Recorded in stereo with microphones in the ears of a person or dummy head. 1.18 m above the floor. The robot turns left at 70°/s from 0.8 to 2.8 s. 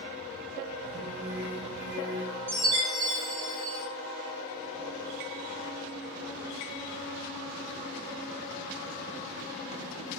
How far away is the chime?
About 0.7 m.